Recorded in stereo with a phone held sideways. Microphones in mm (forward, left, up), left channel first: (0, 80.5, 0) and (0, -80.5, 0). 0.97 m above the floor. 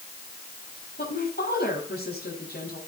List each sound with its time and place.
1.0 s a woman speaking: 85° left, 7 m